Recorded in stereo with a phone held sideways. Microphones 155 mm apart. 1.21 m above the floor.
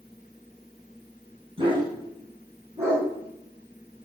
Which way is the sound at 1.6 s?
35° right (ahead or behind).